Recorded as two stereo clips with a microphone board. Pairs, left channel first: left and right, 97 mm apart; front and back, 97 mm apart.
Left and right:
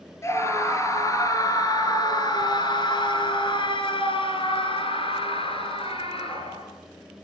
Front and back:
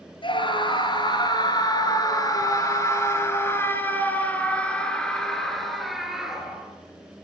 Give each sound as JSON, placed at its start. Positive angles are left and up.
{"t": 0.2, "sound": "a scream", "azimuth_deg": 30, "distance_m": 5.0}